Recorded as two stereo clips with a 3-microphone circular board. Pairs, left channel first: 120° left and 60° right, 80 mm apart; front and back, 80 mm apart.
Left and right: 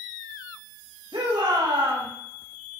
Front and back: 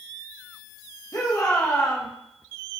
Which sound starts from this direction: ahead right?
A shout, at 1.1 s.